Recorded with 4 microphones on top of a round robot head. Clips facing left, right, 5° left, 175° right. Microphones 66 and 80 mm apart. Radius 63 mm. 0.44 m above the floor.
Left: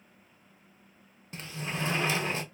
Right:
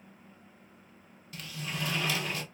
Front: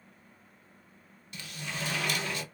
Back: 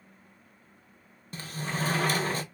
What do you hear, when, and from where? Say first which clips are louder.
1.3 s a sliding door: left 2 dB, back 6 dB; 145° left, 0.6 m